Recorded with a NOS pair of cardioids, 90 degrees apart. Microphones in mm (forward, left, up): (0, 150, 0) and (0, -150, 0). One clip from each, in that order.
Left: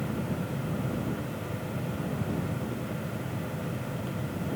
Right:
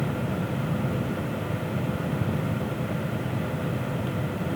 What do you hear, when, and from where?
0.0 s a fan: 40° right